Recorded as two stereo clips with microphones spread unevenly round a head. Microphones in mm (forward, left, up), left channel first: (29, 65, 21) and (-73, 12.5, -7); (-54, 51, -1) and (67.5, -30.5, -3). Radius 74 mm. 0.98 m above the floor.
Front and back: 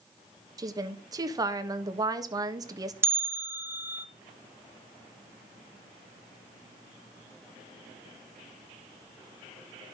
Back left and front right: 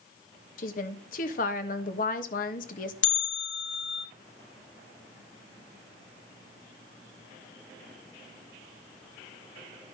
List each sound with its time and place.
0.6 s a woman speaking: 170° left, 1.3 m
3.0 s a bell: 140° left, 0.9 m